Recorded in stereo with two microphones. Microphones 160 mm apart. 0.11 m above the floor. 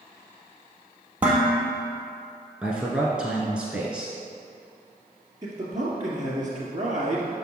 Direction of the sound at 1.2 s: 10° right (ahead or behind).